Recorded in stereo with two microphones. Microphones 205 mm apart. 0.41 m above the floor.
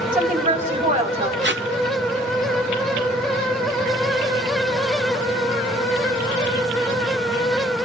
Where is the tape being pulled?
60° right (ahead or behind), 0.8 m.